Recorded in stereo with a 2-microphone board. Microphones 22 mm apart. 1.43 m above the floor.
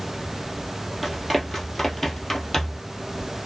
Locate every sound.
1.0 s running footsteps: 10° right (ahead or behind), 1.6 m; by 2.9 s 25° left (ahead or behind), 1.6 m